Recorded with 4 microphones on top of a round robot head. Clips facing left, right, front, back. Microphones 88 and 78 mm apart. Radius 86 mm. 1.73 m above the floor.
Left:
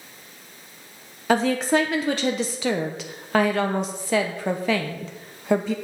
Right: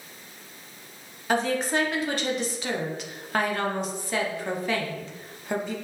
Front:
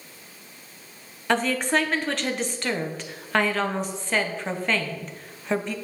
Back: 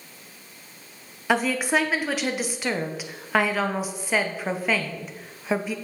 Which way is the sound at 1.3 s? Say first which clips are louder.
Left 5 dB, even; 100° left.